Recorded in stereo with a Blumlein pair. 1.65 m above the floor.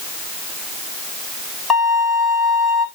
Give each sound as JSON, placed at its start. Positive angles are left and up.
{"t": 1.7, "sound": "a violin", "azimuth_deg": 10, "distance_m": 4.5}